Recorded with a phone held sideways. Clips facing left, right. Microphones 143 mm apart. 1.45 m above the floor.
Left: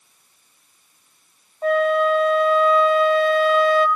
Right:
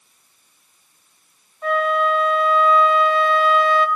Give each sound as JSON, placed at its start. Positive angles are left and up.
{"t": 1.6, "sound": "a flute", "side_deg": 40, "distance_m": 1.7}